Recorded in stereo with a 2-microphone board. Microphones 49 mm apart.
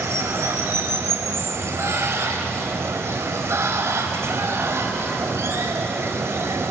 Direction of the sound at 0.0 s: 75° right (ahead or behind).